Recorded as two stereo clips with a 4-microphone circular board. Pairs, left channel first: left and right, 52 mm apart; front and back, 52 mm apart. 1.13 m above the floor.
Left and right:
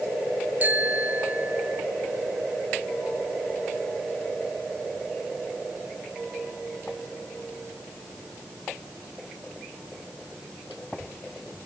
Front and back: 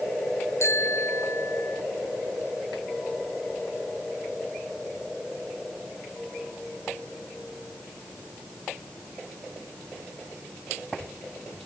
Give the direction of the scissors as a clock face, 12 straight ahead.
I don't hear scissors.